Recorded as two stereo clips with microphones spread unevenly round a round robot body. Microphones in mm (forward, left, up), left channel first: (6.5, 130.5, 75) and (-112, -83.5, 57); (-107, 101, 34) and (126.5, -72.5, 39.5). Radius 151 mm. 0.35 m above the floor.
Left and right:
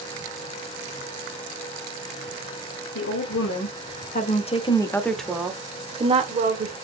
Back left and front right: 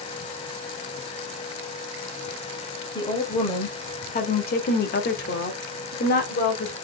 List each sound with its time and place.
3.0 s a woman speaking: 70° left, 1.5 m; by 6.7 s 165° right, 1.6 m